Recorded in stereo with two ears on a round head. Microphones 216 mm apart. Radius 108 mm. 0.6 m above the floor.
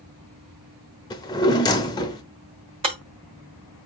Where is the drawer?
15° left (ahead or behind), 0.6 m.